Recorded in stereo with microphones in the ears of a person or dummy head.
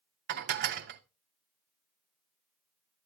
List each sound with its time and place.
0.3 s dishes clattering: 50° right (ahead or behind), 0.5 m